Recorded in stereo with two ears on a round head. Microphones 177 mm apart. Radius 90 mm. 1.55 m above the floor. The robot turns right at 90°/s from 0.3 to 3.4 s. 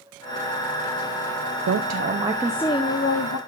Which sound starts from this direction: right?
A woman speaking, at 1.7 s.